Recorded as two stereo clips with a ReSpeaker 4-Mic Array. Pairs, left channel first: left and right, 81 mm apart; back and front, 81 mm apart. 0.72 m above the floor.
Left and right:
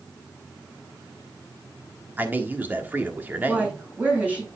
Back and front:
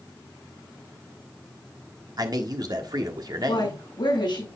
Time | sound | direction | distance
2.2 | a man speaking | 25° right | 1.5 m
3.5 | a woman speaking | 160° right | 6.5 m